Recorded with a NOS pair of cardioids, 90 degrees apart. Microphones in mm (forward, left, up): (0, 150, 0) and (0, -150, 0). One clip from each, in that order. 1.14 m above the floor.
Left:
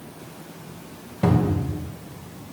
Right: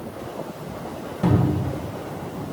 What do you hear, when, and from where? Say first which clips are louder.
1.2 s a cupboard door: even; 25° left, 1.6 m